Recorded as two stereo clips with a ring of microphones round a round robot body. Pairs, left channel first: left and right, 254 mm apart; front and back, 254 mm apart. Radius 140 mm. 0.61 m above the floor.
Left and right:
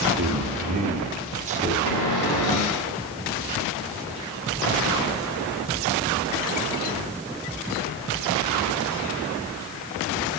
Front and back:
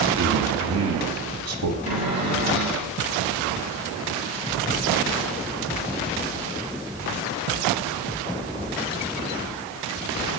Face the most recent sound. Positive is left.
turn(degrees=110)